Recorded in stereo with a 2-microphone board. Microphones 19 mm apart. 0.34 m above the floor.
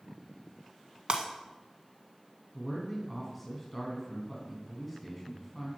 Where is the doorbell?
No doorbell in this recording.